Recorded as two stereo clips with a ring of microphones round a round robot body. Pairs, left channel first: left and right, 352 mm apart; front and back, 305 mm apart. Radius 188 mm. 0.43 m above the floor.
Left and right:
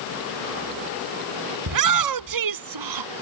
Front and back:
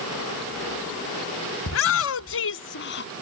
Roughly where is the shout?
Ahead right.